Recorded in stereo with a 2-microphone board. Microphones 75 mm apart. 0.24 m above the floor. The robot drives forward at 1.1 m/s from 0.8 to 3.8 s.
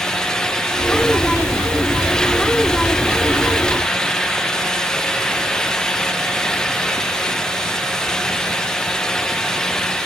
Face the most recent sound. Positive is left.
No sound to turn to.